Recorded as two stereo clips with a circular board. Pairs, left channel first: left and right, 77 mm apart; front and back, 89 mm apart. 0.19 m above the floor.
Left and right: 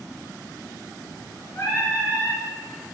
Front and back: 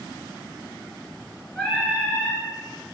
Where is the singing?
90° left, 1.8 m.